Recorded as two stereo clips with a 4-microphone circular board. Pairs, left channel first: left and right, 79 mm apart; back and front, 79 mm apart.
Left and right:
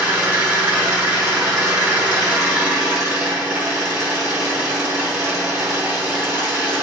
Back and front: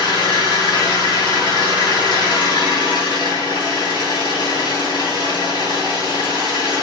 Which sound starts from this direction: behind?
An engine running, at 0.0 s.